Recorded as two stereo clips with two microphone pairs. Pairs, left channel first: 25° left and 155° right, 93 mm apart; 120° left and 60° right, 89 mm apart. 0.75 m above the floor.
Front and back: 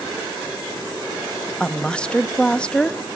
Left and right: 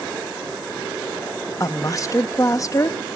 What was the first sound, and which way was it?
A woman speaking, 100° left.